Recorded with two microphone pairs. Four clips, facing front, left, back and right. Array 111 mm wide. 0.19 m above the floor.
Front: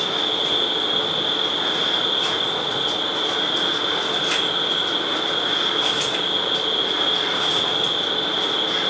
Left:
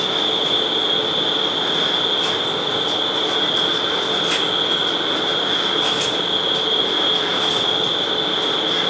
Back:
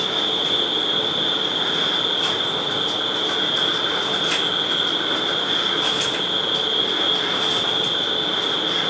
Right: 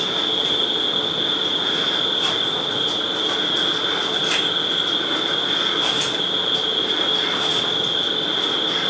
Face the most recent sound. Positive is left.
turn(degrees=175)